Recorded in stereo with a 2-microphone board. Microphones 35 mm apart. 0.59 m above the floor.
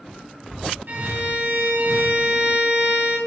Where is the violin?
80° right, 3 m.